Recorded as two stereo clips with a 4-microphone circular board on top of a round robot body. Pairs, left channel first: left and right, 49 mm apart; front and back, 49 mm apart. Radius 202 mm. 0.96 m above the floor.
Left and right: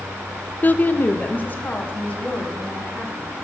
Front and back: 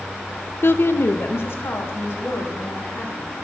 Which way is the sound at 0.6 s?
40° left.